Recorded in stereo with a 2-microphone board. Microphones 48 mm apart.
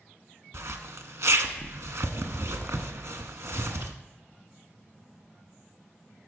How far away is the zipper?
About 0.7 m.